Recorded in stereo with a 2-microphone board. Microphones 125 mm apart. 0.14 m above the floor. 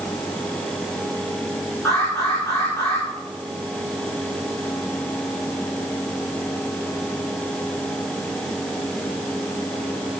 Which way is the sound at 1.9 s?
25° left (ahead or behind).